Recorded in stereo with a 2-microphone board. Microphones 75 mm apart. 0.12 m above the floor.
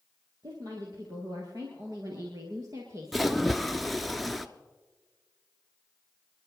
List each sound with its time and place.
0.4 s a woman speaking: 60° right (ahead or behind), 3 m; by 4.1 s 30° right (ahead or behind), 1.5 m
3.1 s a splash: centre (ahead or behind), 0.6 m